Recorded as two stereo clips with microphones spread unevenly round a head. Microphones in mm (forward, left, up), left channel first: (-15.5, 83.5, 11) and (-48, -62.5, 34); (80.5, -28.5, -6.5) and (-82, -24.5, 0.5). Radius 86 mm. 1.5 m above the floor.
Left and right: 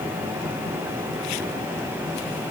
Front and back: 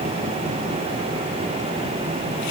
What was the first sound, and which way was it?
Only background noise.